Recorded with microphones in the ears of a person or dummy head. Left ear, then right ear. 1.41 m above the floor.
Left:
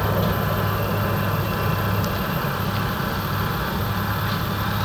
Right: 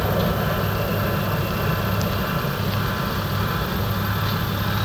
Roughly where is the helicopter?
Centre.